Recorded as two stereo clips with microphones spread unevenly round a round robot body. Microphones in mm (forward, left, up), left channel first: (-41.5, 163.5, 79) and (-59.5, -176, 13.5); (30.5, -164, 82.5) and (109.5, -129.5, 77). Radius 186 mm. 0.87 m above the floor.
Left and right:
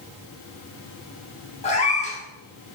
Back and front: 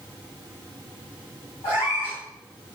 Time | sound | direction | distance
1.6 | a cat meowing | 155° left | 4.5 m